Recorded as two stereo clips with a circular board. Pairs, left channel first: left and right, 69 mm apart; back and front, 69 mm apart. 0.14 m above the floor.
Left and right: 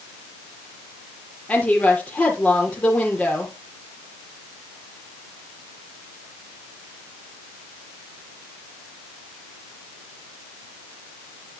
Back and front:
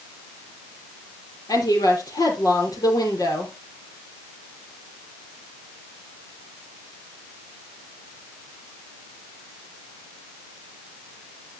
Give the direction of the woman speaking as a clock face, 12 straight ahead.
7 o'clock.